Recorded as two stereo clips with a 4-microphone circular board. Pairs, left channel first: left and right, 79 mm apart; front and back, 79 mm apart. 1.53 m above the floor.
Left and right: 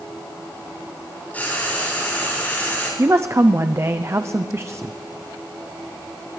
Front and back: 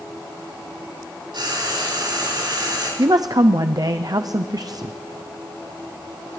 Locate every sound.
1.3 s frying: 160° left, 6 m
3.0 s a woman speaking: 145° right, 0.5 m